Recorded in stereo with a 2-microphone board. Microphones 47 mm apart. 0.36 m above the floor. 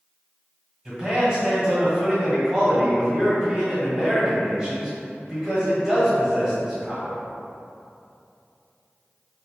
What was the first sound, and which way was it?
A man speaking, 15° right (ahead or behind).